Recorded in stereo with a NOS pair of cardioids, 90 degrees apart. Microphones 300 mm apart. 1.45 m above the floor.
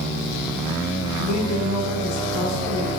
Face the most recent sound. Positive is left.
turn(degrees=65)